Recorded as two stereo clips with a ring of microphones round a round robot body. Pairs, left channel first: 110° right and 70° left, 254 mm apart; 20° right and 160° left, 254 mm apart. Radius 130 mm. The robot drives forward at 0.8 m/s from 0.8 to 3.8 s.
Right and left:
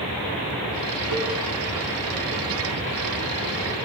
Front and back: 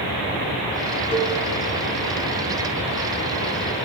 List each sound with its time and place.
1.1 s a cowbell: 45° left, 1.6 m; by 1.3 s 50° left, 1.5 m